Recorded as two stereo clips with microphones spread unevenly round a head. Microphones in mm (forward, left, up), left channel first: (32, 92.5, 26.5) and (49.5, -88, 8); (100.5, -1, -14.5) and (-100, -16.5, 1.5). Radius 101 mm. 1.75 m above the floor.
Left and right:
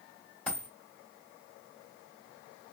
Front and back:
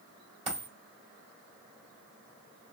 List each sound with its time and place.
0.5 s a dropped coin: 165° left, 1.7 m